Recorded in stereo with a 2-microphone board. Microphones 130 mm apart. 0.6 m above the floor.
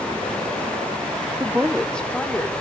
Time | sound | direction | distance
1.4 | a woman speaking | 20° right (ahead or behind) | 0.9 m